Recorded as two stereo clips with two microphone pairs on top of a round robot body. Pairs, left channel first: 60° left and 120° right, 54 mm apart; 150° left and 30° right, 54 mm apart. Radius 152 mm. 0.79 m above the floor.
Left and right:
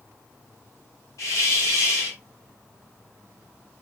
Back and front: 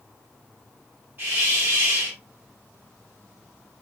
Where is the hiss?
30° left, 0.6 m.